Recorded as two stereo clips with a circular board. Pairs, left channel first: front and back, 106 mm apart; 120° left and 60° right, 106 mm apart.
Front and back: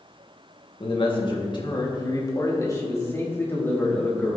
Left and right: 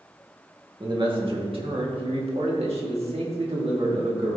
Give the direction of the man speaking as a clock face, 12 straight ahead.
1 o'clock.